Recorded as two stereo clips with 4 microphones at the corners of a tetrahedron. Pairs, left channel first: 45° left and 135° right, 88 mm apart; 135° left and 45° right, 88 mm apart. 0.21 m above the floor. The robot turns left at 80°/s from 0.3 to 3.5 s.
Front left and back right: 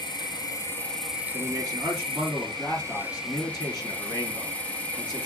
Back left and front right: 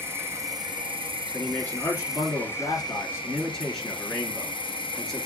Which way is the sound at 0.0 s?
15° left.